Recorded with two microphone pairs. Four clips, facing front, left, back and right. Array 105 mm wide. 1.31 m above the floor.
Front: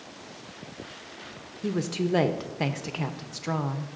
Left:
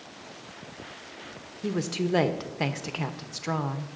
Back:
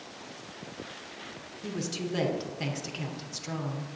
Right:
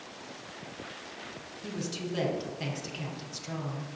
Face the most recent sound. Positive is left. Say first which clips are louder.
# left 8 dB, front 7 dB
turn(degrees=60)